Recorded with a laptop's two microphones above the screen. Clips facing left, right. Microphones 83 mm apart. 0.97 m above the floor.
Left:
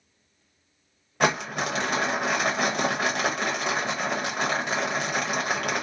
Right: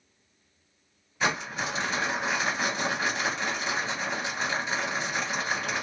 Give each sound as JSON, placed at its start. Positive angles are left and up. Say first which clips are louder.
{"t": 1.2, "sound": "crumpling", "louder": "left 4 dB", "side_deg": 60, "distance_m": 0.8}